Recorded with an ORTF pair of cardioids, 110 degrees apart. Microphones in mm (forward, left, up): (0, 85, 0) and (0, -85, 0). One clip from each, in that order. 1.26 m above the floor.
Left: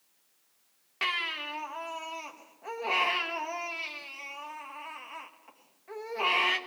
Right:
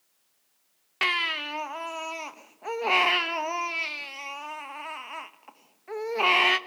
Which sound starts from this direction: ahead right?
A baby crying, at 1.0 s.